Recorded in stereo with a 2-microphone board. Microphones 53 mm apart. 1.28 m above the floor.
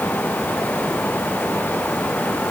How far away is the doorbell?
No doorbell in this recording.